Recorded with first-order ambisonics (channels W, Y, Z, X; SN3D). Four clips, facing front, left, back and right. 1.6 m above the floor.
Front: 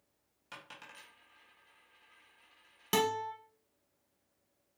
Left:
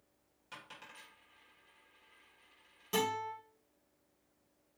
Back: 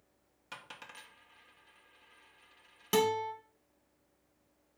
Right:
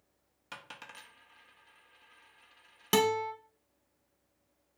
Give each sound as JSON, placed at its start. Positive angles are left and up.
{"t": 0.5, "sound": "a dropped coin", "azimuth_deg": -110, "distance_m": 1.0}
{"t": 2.9, "sound": "a guitar", "azimuth_deg": -85, "distance_m": 0.8}